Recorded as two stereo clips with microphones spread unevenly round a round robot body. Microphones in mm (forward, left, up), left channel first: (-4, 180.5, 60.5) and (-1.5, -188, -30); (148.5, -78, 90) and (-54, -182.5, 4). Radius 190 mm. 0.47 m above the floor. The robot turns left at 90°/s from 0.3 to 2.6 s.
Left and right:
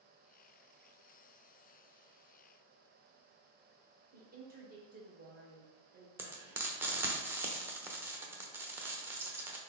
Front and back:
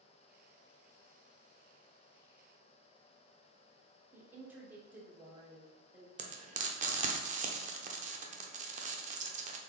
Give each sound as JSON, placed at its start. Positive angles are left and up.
{"t": 4.1, "sound": "a woman speaking", "azimuth_deg": -105, "distance_m": 1.4}
{"t": 6.2, "sound": "frying", "azimuth_deg": -160, "distance_m": 0.6}